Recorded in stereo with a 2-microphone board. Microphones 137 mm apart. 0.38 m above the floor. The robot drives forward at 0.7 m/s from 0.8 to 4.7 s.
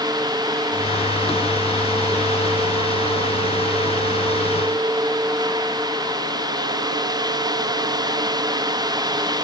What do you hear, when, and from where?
Only background noise.